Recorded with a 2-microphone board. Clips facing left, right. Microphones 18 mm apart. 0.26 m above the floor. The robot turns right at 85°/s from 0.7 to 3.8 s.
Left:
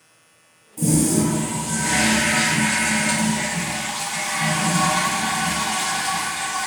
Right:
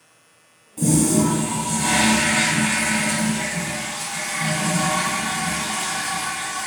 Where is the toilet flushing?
160° right, 2.0 m; by 6.7 s 95° left, 2.0 m.